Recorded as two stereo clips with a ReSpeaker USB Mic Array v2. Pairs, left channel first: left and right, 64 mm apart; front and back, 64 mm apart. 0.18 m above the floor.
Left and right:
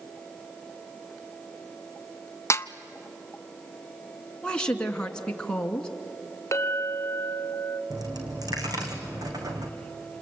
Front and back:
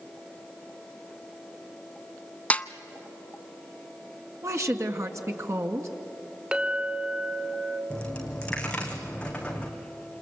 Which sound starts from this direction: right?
A dropped coin, at 7.9 s.